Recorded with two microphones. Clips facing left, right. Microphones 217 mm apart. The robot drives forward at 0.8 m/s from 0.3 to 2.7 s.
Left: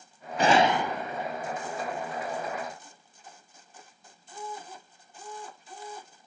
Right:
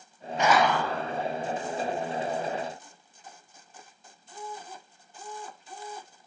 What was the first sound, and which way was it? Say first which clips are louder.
A gunshot: left 1 dB; 35° left (ahead or behind).